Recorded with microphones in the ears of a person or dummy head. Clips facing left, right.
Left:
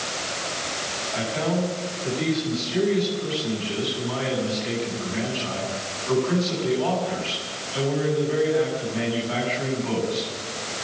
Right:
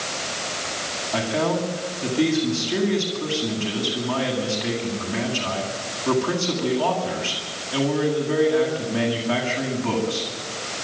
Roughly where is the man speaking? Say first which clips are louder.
Right 3 dB; right.